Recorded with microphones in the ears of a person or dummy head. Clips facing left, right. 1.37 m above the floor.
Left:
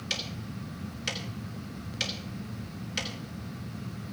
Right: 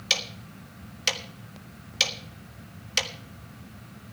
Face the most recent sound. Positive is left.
turn(degrees=-70)  # may be behind; listen again after turning